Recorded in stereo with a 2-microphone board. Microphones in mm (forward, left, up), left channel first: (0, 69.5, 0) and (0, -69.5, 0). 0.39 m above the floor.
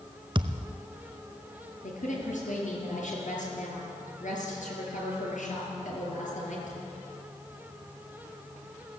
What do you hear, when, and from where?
0.3 s a thud: 40° right (ahead or behind), 0.8 m
1.8 s a woman speaking: 70° left (ahead or behind), 6.5 m